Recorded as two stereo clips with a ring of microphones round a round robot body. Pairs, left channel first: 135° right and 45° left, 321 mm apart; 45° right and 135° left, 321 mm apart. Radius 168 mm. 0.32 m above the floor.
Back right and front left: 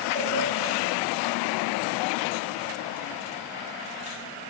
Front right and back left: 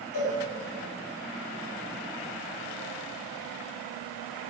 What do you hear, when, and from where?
0.1 s a cowbell: 70° right, 2 m